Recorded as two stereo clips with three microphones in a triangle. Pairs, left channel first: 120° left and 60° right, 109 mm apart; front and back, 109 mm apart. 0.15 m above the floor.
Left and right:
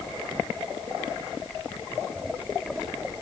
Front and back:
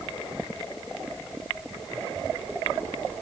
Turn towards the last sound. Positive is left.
No sound to turn to.